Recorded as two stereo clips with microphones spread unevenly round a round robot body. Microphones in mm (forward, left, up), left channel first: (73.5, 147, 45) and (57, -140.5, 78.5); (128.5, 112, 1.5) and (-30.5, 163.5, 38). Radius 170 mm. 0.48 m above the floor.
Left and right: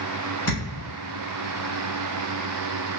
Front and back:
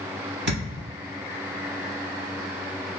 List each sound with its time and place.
0.5 s a thud: 170° left, 0.8 m